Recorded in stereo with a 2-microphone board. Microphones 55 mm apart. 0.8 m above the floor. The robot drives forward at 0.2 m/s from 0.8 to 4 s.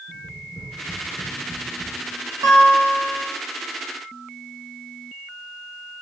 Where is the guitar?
65° right (ahead or behind), 1.3 m; by 3.2 s 60° right (ahead or behind), 1.4 m.